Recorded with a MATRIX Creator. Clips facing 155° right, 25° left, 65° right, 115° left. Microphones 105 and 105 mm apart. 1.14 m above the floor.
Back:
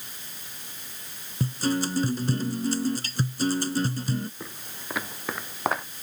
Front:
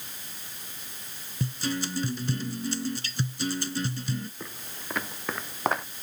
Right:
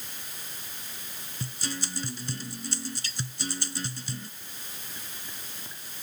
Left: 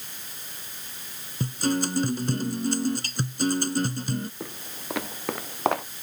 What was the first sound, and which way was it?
A guitar, 155° left.